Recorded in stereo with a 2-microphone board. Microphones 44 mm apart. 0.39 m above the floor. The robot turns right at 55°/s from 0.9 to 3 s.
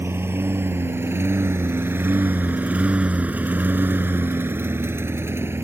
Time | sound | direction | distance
0.0 | a lawn mower | 80° right | ?